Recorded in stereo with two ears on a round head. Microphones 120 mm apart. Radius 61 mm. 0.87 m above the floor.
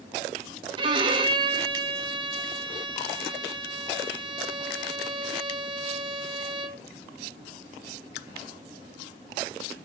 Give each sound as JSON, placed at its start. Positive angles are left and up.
{"t": 0.8, "sound": "a violin", "side_deg": -35, "distance_m": 0.8}